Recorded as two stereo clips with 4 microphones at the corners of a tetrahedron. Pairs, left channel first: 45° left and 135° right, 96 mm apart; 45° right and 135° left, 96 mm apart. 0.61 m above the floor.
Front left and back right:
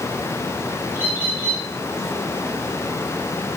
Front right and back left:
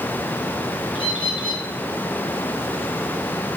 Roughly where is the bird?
Right.